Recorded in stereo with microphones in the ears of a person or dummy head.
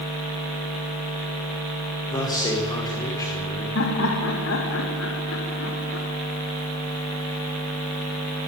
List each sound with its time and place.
2.1 s a man speaking: 20° left (ahead or behind), 5 m
3.8 s laughter: 80° left, 4.5 m